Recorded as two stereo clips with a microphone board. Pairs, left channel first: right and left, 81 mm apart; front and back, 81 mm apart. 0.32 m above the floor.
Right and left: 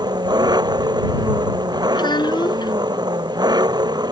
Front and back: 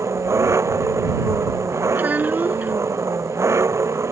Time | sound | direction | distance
0.0 | an engine running | 125° left | ?
1.9 | a child speaking | 110° right | ?